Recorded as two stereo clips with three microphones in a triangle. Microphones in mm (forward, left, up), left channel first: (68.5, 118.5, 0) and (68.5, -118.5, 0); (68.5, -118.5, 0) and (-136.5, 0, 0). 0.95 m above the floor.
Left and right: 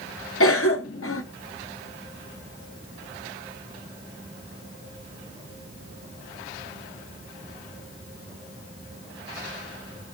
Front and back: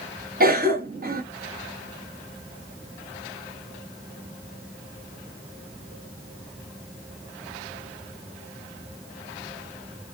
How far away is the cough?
About 0.7 m.